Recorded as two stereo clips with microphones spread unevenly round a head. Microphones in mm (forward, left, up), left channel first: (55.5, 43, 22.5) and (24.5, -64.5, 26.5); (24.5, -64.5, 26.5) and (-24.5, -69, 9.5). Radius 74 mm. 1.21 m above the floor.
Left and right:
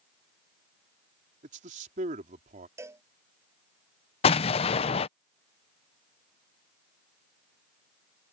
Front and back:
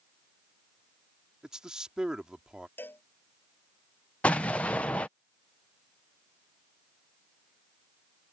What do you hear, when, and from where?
1.4 s a man speaking: 95° right
2.8 s a cowbell: 40° right
4.2 s an explosion: 85° left